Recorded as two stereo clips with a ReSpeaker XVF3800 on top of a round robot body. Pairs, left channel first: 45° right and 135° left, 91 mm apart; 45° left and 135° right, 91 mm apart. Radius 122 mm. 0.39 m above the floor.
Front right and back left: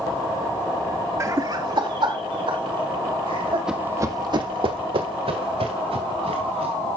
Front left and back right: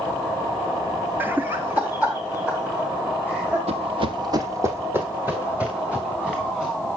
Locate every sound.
1.2 s laughter: 170° left, 0.9 m; by 3.6 s 155° left, 4 m
3.7 s running footsteps: 140° right, 1.0 m; by 6.7 s 140° left, 4 m